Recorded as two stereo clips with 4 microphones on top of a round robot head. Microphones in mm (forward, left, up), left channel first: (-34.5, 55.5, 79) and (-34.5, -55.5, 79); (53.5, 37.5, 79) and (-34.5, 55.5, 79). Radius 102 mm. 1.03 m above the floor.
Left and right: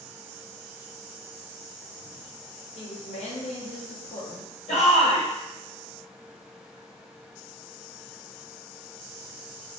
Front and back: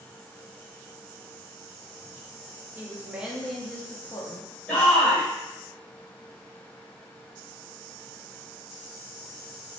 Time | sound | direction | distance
2.8 | a woman speaking | 100° left | 1.1 m
4.7 | a shout | 60° left | 1.7 m